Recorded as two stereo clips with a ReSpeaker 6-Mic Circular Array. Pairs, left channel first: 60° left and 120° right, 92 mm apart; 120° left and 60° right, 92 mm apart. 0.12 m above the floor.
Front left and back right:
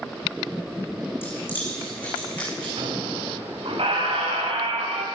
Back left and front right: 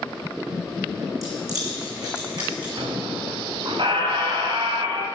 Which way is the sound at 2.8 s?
95° right.